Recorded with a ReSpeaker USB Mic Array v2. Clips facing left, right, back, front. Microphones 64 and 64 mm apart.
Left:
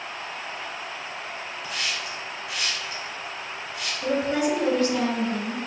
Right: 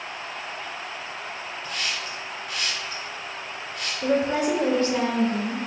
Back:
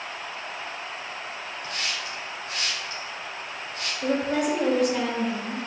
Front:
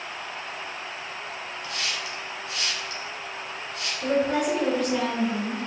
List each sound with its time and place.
1.6 s a hiss: 175° left, 1.5 m
4.0 s a woman speaking: 95° right, 1.0 m